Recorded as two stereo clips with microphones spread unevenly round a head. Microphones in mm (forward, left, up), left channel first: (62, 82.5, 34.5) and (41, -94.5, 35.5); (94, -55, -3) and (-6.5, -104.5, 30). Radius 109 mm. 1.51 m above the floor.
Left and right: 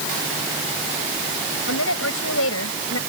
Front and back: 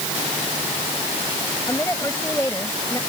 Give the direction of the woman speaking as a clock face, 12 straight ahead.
8 o'clock.